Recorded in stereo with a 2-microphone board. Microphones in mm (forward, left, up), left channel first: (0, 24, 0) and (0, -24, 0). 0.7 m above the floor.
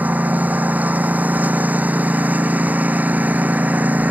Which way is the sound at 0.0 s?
35° right (ahead or behind).